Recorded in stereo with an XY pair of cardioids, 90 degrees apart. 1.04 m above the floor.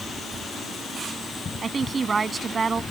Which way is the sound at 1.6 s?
35° right.